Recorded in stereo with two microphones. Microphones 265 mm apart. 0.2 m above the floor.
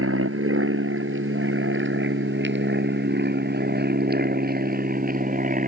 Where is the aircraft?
55° right (ahead or behind); by 5.7 s 30° right (ahead or behind).